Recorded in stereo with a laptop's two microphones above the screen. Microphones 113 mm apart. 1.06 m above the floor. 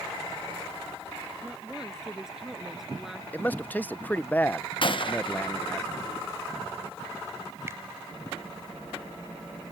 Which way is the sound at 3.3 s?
15° left (ahead or behind).